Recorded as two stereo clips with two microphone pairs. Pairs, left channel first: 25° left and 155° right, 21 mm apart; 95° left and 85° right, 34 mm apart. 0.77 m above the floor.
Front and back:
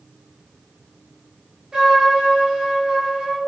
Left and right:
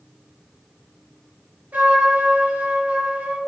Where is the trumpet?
95° right, 5 m.